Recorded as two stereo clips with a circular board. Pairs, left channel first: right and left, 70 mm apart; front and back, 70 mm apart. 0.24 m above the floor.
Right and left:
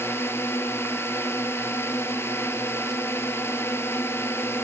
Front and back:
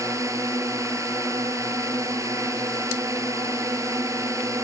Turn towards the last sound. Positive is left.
turn(degrees=-140)